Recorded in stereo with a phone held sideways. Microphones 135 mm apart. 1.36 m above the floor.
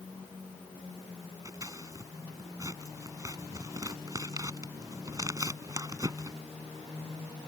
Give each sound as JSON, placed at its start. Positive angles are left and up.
{"t": 1.4, "sound": "scissors", "side_deg": -25}